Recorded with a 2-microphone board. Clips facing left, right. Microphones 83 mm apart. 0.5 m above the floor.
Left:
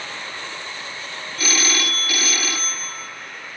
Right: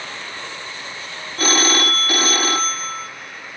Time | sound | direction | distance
1.4 | a phone ringing | 45° right (ahead or behind) | 0.6 m